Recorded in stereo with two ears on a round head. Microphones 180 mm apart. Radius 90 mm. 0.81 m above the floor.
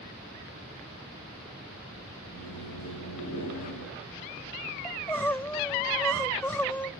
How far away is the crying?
About 0.5 m.